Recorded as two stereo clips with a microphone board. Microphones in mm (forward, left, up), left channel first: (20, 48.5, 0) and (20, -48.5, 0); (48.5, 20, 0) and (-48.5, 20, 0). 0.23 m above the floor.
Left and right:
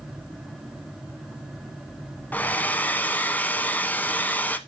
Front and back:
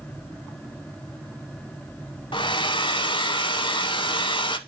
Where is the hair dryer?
20° left, 0.6 m.